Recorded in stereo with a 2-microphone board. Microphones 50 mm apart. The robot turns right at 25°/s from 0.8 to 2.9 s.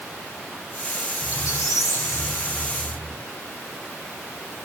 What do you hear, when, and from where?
1.2 s a squeak: 85° left, 3 m; by 3.2 s 130° left, 3 m